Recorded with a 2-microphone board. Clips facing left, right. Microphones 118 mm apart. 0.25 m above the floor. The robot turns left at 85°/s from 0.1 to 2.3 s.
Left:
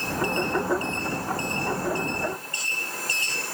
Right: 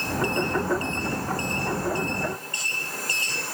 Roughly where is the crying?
No crying in this recording.